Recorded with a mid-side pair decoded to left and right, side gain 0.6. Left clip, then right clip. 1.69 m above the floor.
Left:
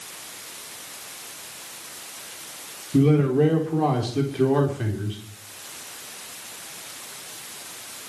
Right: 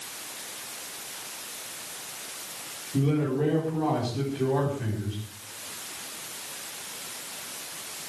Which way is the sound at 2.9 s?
50° left.